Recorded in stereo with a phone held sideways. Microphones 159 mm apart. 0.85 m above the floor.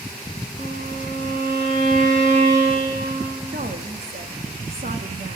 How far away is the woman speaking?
About 1.2 m.